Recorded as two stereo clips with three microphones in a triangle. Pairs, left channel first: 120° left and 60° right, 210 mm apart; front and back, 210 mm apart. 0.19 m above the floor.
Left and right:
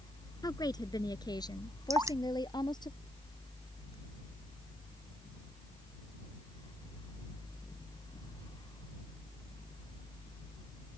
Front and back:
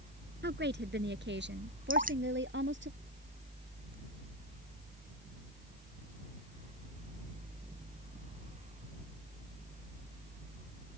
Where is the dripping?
135° right.